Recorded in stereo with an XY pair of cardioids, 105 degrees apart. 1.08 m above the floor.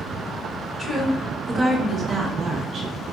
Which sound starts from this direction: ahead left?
A woman speaking, at 0.8 s.